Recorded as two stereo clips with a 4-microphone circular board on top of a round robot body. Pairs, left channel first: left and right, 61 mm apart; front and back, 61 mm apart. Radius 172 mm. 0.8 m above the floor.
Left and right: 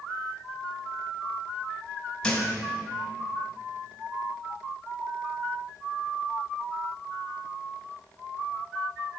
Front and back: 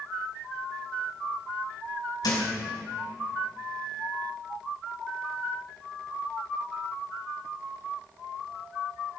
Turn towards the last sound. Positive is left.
turn(degrees=10)